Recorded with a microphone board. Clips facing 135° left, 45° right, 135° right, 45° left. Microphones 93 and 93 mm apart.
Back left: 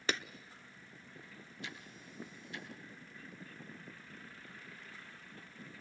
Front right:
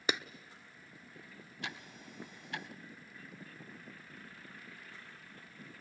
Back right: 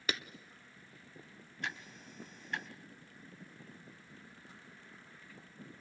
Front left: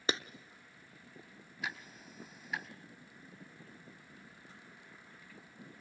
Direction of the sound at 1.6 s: 40° right.